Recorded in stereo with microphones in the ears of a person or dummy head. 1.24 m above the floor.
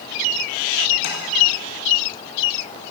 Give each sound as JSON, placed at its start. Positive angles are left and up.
{"t": 1.0, "sound": "tapping", "side_deg": 55, "distance_m": 2.0}